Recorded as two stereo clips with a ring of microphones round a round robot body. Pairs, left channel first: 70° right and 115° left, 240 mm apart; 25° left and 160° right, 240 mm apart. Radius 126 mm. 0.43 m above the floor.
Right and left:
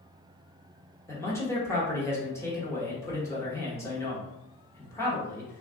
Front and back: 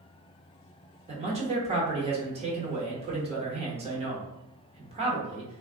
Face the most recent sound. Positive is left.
turn(degrees=-135)